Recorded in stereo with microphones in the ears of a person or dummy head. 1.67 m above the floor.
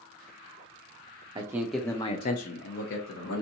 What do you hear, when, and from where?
1.4 s a man speaking: 20° right (ahead or behind), 0.6 m; by 3.4 s 75° left (ahead or behind), 1.0 m